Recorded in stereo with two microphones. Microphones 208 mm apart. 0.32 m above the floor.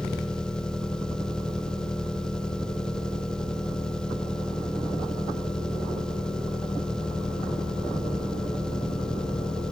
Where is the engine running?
5° left (ahead or behind).